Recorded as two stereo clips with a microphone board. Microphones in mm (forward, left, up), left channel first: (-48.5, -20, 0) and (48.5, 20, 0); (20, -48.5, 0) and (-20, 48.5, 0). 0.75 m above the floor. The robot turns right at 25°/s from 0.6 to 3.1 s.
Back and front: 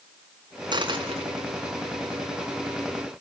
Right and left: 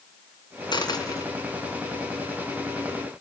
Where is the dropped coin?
20° right, 3 m; by 1.3 s 5° right, 3 m.